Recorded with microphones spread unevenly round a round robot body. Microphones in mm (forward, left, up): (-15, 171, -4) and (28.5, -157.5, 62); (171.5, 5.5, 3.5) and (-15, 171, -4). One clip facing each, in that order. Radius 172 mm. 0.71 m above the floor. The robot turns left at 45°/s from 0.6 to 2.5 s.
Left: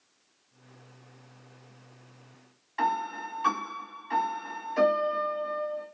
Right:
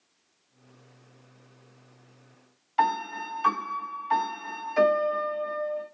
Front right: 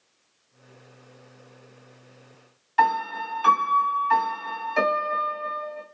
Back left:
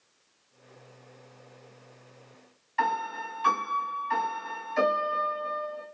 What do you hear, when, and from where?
2.8 s a piano: 15° right, 1.4 m